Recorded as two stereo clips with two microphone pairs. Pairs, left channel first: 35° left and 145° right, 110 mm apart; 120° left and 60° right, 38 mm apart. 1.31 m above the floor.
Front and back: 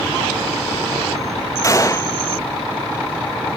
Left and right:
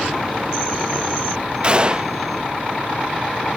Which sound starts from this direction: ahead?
A gunshot, at 1.6 s.